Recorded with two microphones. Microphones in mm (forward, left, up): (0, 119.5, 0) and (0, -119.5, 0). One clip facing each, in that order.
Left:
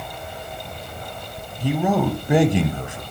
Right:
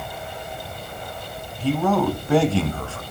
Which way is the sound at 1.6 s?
15° left (ahead or behind).